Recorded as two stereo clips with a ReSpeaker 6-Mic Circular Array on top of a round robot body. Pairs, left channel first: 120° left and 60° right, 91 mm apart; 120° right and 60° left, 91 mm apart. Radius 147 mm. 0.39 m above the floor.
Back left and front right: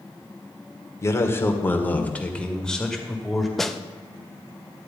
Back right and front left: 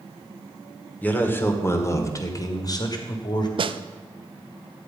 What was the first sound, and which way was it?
A man speaking, 170° left.